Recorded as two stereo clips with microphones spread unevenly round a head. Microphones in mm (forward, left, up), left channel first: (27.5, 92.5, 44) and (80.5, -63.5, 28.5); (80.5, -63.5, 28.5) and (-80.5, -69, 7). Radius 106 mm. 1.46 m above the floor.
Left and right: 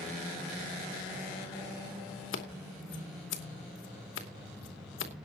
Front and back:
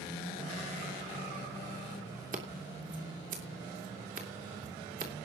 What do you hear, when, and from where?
2.3 s scissors: 125° left, 2.5 m